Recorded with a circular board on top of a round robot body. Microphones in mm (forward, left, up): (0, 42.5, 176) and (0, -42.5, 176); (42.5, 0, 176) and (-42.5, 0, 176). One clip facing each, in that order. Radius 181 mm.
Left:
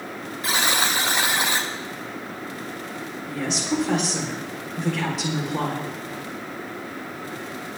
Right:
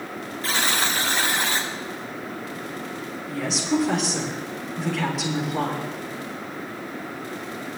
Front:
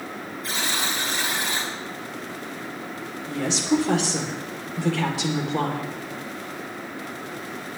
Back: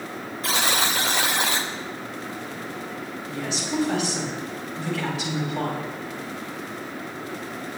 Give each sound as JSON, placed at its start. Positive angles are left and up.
{"t": 0.4, "sound": "a buzzer", "azimuth_deg": 165, "distance_m": 0.8}
{"t": 3.3, "sound": "a woman speaking", "azimuth_deg": 0, "distance_m": 3.5}